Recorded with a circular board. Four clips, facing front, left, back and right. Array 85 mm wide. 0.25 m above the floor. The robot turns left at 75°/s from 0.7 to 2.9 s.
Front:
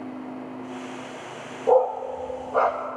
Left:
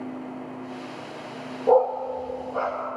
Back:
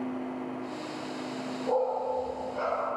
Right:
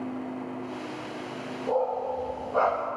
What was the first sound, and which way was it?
A dog barking, 50° left.